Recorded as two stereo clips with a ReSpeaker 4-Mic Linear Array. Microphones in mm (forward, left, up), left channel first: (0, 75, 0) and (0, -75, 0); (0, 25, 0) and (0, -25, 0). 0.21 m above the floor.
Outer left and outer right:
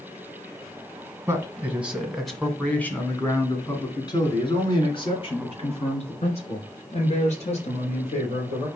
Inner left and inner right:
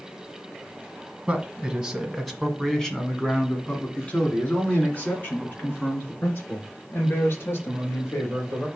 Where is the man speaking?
20° right (ahead or behind), 1.5 m; by 8.7 s 50° left (ahead or behind), 4 m.